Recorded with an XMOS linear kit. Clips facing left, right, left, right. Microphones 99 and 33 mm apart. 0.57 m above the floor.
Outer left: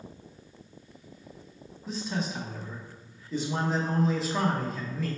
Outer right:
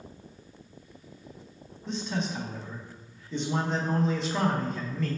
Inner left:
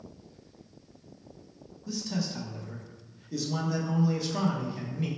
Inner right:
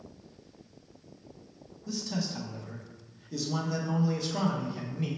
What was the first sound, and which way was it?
A man speaking, 5° left (ahead or behind).